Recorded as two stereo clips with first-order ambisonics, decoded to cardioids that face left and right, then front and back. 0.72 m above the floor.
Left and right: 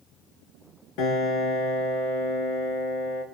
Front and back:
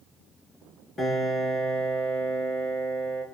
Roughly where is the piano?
Left.